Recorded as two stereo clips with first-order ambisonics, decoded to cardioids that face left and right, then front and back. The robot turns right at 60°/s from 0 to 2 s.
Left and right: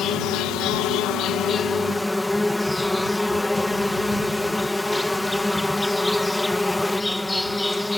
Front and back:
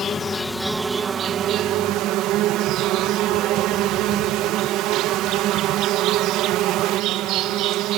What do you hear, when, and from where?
0.0 s an insect: 50° left; by 8.0 s 170° left